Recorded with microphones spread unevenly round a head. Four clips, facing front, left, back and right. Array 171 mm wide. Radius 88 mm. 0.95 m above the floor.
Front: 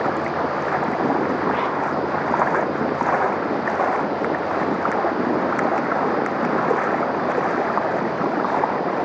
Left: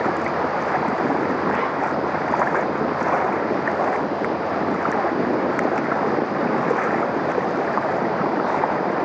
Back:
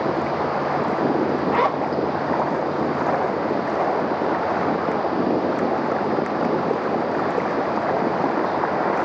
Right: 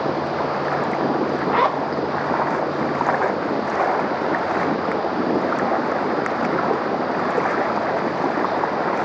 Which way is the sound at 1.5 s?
125° right.